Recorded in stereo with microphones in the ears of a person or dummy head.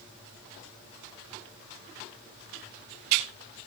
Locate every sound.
Only background noise.